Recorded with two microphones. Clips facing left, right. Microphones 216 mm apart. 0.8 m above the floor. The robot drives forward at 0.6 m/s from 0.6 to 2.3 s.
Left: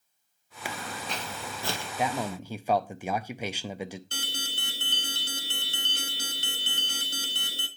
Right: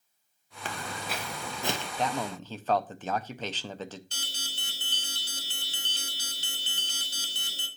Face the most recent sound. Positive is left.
turn(degrees=60)  # may be behind; listen again after turning